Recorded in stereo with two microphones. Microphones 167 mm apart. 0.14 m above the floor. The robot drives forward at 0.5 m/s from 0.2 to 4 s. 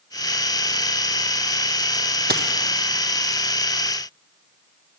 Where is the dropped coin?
75° right (ahead or behind), 0.7 m; by 2.5 s 70° right (ahead or behind), 0.7 m.